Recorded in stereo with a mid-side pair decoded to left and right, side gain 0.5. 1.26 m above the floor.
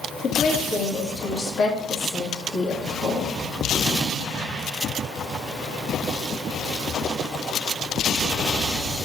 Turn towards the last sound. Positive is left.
turn(degrees=55)